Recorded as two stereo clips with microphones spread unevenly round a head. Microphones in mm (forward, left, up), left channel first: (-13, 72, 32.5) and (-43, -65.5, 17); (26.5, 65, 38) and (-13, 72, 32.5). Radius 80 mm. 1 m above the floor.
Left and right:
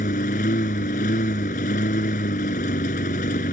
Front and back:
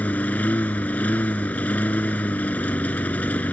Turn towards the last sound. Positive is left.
turn(degrees=35)